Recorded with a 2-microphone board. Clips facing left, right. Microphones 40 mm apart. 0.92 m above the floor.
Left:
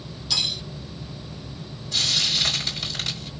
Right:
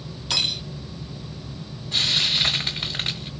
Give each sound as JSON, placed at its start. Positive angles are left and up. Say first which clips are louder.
{"t": 0.3, "sound": "cutlery clinking", "louder": "right 2 dB", "side_deg": -45, "distance_m": 1.4}
{"t": 1.9, "sound": "frying", "louder": "right 2 dB", "side_deg": -25, "distance_m": 2.5}